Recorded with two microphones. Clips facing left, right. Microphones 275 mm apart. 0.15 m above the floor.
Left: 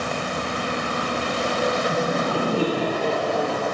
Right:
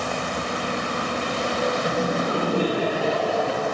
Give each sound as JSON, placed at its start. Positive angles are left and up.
{"t": 1.9, "sound": "laughter", "side_deg": -35, "distance_m": 1.7}